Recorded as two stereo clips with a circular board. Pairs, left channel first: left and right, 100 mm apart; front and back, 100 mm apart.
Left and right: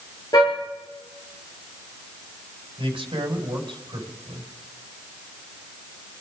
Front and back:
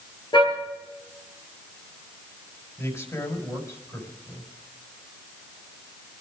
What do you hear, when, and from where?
0.3 s a car horn: 40° left, 9.5 m
2.8 s a man speaking: 60° right, 4.5 m